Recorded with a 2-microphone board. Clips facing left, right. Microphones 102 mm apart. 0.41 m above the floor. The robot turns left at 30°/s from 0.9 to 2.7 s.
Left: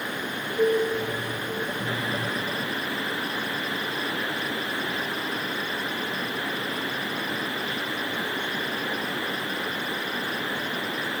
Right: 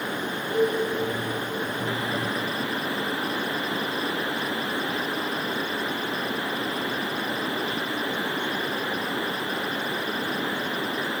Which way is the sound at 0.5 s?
60° right (ahead or behind).